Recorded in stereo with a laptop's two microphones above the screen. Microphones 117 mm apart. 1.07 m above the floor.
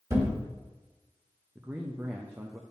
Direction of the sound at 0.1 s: 30° right (ahead or behind).